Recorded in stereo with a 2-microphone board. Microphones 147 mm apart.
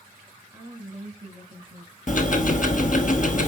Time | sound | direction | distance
0.5 | a woman speaking | 15° right (ahead or behind) | 1.2 m
2.1 | ticking | 60° left (ahead or behind) | 0.8 m